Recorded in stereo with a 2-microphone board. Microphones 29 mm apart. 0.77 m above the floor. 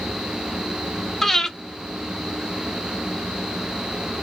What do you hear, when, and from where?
1.2 s breathing: 5° left (ahead or behind), 0.6 m